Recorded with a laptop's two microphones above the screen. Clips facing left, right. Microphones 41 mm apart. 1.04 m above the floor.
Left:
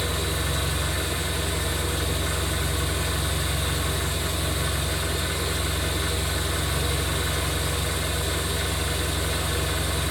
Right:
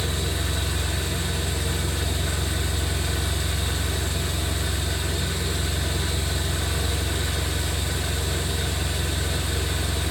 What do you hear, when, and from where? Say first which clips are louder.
0.0 s an engine running: left 1 dB; 15° left (ahead or behind), 0.8 m